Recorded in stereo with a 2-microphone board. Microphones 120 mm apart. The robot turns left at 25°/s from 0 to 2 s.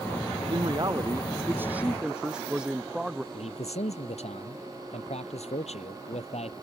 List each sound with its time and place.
0.5 s a man speaking: 135° right; by 3.2 s 170° right
3.3 s a man speaking: 65° left (ahead or behind)